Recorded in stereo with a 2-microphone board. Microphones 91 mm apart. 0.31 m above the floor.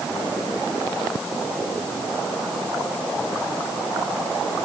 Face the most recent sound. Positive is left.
No sound to turn to.